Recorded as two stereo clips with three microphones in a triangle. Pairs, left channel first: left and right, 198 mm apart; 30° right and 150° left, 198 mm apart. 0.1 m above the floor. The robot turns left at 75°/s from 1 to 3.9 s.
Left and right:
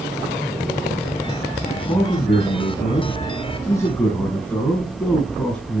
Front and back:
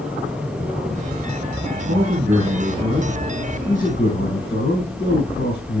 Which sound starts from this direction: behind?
A man speaking, at 1.9 s.